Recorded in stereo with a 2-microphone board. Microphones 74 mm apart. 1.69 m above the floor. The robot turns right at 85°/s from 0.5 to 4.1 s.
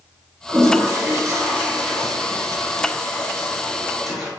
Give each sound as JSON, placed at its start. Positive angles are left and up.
{"t": 0.5, "sound": "a toilet flushing", "azimuth_deg": -125, "distance_m": 1.0}